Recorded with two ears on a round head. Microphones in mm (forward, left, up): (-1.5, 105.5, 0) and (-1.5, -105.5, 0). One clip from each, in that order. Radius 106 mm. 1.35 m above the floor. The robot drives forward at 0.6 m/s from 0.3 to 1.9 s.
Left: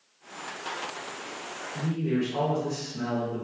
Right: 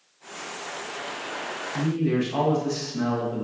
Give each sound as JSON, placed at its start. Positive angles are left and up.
{"t": 1.7, "sound": "a man speaking", "side_deg": -50, "distance_m": 0.8}